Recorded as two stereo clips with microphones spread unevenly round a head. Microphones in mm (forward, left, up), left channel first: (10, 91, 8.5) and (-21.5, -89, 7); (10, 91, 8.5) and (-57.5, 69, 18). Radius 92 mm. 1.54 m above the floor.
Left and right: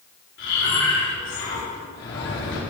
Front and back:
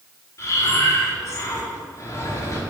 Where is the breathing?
55° left, 4 m.